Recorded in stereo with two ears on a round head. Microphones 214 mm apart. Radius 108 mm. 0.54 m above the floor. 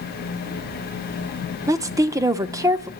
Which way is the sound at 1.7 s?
15° right (ahead or behind).